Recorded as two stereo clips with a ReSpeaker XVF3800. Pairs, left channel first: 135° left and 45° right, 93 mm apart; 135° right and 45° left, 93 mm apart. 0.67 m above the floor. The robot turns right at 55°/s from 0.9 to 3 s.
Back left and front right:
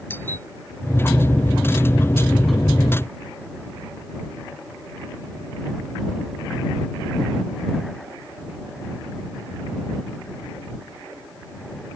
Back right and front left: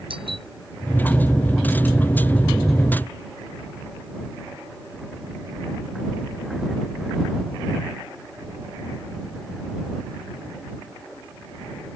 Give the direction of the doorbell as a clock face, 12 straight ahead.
10 o'clock.